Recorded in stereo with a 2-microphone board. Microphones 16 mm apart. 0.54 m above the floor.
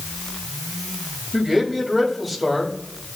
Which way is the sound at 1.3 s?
15° left (ahead or behind).